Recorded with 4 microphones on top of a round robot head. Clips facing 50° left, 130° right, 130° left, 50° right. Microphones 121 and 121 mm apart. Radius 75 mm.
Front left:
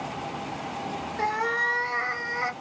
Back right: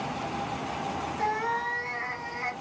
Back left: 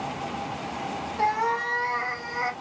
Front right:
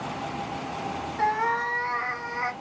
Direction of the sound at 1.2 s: 55° left.